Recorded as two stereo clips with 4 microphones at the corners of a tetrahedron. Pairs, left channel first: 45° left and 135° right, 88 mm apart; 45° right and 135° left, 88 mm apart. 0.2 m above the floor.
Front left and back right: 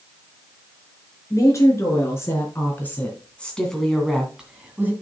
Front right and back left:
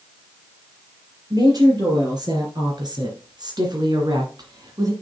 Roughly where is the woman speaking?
Left.